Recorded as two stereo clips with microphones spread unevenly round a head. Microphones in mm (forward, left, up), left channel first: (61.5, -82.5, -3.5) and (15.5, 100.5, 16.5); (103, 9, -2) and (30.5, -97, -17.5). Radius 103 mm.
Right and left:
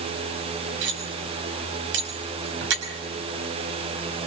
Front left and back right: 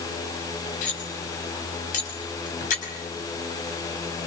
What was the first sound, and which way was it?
Cutlery clinking, 90° left.